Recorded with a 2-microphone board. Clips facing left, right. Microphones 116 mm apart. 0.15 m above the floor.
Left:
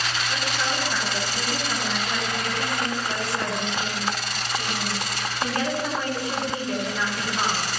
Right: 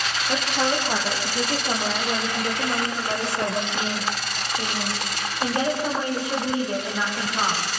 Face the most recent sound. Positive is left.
turn(degrees=-20)  # may be behind; listen again after turning